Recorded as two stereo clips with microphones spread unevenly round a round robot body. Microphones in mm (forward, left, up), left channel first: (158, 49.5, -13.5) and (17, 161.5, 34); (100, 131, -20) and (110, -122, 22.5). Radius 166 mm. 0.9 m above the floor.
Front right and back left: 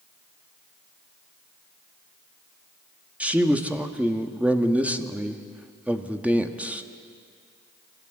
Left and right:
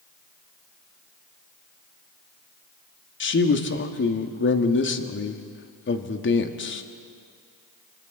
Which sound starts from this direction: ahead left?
A man speaking, at 3.2 s.